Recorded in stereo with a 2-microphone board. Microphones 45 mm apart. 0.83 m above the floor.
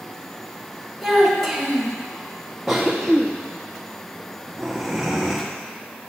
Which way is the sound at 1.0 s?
Centre (ahead or behind).